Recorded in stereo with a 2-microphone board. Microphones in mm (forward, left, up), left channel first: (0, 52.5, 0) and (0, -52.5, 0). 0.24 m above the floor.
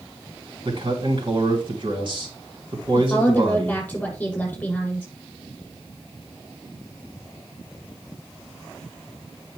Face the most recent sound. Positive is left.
turn(degrees=15)  # may be behind; listen again after turning